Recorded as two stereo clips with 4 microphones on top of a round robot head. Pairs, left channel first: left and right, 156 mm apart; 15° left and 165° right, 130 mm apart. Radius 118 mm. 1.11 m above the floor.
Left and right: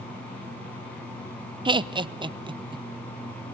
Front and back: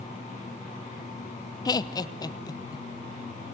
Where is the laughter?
40° right, 0.9 m.